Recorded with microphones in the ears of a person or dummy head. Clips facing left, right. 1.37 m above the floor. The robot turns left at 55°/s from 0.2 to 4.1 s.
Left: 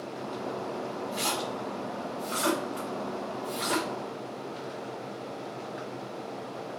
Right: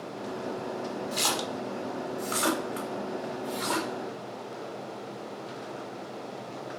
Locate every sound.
1.1 s a splash: 50° right (ahead or behind), 1.1 m; by 3.9 s 20° left (ahead or behind), 1.1 m